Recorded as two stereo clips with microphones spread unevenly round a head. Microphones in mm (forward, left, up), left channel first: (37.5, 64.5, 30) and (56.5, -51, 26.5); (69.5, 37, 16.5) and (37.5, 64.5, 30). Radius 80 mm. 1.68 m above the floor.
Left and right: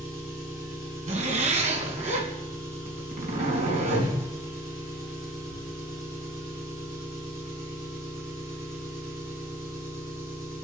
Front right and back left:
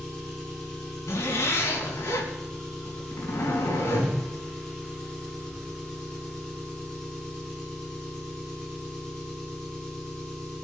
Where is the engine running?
150° right, 10 m.